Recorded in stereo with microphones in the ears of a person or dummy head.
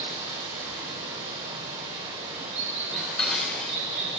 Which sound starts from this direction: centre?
Dishes clattering, at 2.9 s.